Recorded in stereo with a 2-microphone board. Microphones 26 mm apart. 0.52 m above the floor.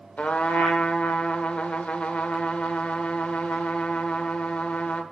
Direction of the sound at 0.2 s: 60° left (ahead or behind).